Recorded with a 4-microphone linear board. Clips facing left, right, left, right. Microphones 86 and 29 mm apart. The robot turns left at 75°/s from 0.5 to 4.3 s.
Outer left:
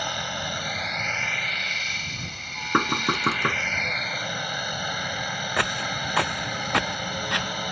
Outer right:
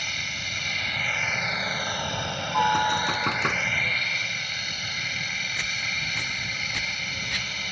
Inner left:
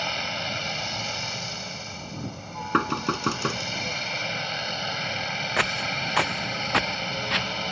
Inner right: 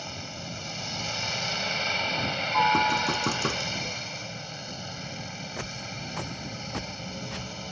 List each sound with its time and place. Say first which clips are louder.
0.0 s a helicopter: outer left 5 dB, inner left 10 dB; 55° left; by 7.7 s 130° left
2.7 s knocking: even, inner right 1 dB; 65° left; by 3.6 s straight ahead
5.6 s footsteps: outer left 7 dB, inner left 14 dB; 75° left (ahead or behind); by 7.5 s 60° left (ahead or behind)